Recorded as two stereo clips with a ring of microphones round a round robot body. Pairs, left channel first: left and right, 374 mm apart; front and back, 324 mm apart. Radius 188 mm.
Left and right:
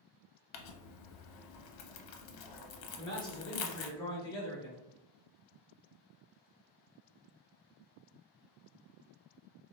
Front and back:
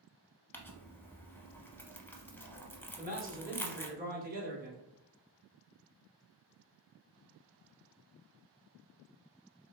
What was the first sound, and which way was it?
Crumpling, 85° left.